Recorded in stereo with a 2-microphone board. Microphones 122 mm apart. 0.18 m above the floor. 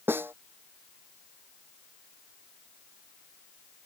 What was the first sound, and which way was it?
A snare drum, 15° right (ahead or behind).